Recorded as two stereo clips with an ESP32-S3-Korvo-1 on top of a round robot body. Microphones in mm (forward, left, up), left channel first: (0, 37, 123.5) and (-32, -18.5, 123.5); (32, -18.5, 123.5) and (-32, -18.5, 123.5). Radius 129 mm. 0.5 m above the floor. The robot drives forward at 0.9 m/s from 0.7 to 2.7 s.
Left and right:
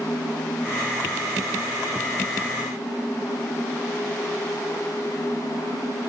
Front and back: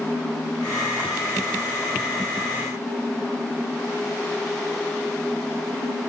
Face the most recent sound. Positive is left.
No sound to turn to.